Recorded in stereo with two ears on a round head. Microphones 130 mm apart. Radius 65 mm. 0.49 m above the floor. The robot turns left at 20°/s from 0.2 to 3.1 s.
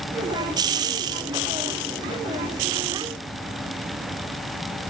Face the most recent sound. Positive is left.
No sound to turn to.